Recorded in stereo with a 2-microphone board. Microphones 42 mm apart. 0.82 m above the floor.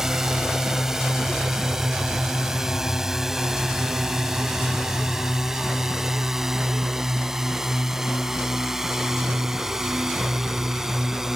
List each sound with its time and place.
0.0 s a drone: 10° right (ahead or behind)